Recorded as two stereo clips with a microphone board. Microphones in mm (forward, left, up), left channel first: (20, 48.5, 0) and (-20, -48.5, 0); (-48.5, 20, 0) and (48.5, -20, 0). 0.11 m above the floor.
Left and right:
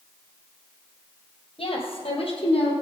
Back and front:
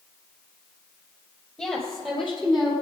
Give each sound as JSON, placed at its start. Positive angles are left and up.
{"t": 1.6, "sound": "a woman speaking", "azimuth_deg": 60, "distance_m": 2.5}